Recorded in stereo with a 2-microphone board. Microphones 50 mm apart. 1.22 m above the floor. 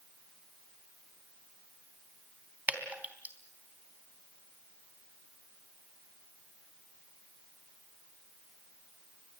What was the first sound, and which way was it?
Dripping, 30° right (ahead or behind).